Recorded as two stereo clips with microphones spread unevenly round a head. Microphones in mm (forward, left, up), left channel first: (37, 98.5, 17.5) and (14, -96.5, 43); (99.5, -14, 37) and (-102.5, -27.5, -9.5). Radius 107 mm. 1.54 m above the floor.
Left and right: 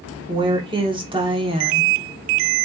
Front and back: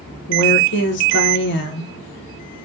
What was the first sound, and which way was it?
A woman speaking, 30° right.